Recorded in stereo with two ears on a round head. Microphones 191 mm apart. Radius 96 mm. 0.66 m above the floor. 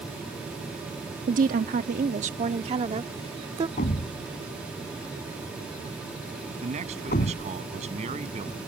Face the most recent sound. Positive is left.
turn(degrees=-30)  # may be behind; listen again after turning